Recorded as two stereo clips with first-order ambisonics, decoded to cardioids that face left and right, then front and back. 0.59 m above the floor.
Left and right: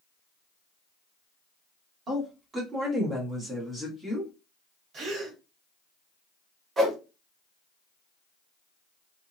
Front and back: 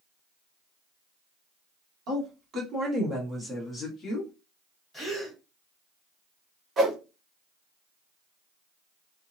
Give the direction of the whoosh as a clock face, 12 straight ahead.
5 o'clock.